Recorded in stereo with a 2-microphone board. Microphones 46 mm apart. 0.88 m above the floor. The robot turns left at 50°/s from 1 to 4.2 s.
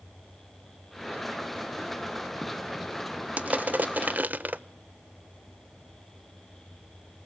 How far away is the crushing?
About 0.6 m.